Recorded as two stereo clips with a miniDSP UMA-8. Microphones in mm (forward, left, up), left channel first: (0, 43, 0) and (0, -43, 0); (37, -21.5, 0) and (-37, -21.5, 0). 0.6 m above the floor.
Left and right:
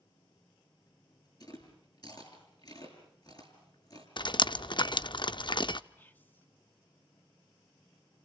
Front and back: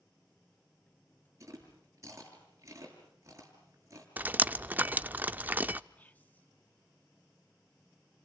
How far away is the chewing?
About 6.5 m.